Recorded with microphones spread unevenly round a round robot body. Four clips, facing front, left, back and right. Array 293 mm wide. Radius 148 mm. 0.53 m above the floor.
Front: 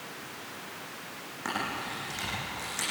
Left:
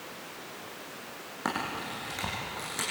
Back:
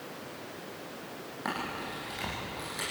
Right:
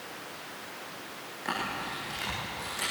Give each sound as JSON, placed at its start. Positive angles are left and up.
{"t": 1.4, "sound": "a camera shutter", "azimuth_deg": 85, "distance_m": 9.0}